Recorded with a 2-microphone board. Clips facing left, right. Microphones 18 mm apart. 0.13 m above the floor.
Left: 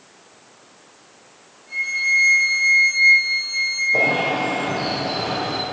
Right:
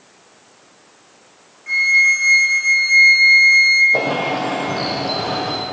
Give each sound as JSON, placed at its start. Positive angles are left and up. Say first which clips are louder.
{"t": 1.7, "sound": "a flute", "louder": "right 7 dB", "side_deg": -65, "distance_m": 4.0}
{"t": 3.9, "sound": "a bird", "louder": "even", "side_deg": -30, "distance_m": 4.0}